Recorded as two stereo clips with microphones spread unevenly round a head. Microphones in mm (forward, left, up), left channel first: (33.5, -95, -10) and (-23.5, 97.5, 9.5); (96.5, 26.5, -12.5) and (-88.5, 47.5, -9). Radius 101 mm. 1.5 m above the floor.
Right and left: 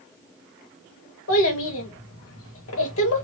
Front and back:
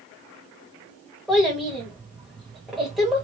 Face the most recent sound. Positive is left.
turn(degrees=-95)